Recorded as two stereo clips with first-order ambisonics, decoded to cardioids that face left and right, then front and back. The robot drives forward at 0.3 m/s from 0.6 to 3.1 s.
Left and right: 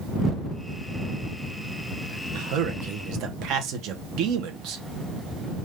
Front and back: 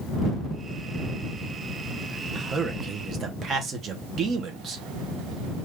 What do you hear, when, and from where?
2.4 s a man speaking: 110° right, 0.9 m; by 4.8 s 125° right, 1.0 m